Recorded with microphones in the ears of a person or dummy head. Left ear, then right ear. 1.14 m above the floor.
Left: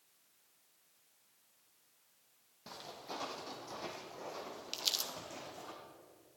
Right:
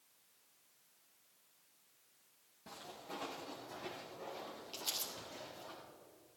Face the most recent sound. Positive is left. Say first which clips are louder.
# left 6 dB
turn(degrees=40)  # may be behind; listen again after turning